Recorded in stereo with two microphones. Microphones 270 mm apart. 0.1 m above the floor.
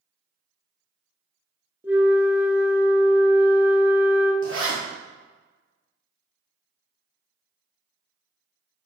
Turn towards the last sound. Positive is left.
turn(degrees=-55)  # may be behind; listen again after turning